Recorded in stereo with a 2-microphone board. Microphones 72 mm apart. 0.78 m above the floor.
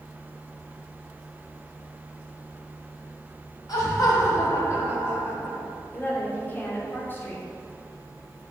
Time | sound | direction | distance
3.7 | laughter | 60° left (ahead or behind) | 2.5 m
5.9 | a woman speaking | 30° left (ahead or behind) | 1.7 m